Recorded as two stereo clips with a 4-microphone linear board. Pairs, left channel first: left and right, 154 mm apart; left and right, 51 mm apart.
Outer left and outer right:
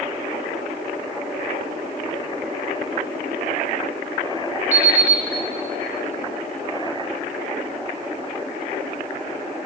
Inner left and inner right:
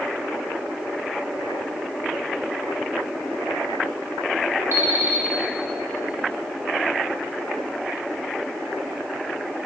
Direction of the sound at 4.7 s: 50° right (ahead or behind).